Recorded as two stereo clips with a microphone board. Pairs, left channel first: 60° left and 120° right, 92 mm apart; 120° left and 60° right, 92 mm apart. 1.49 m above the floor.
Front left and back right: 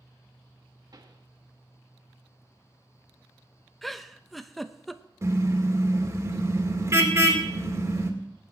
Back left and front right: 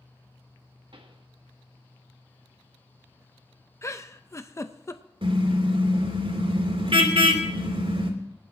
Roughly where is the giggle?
Behind left.